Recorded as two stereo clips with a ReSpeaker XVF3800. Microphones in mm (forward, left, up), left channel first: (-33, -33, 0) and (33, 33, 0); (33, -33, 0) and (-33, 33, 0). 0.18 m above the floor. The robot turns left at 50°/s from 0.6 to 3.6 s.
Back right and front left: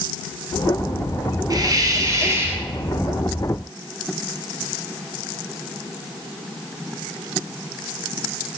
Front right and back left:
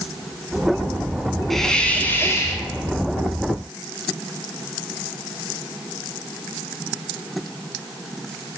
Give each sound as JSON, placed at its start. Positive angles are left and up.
{"t": 1.5, "sound": "a hiss", "azimuth_deg": 40, "distance_m": 1.1}